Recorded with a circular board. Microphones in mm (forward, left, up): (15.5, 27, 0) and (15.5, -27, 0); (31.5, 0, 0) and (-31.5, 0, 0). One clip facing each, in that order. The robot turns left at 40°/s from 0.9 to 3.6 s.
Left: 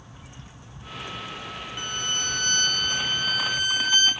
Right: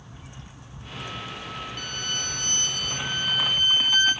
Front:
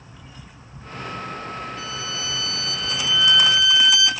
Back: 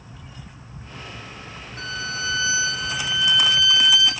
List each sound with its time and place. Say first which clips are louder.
1.8 s a violin: left 5 dB, back 1 dB; 160° left, 1.3 m; by 4.1 s 85° left, 1.3 m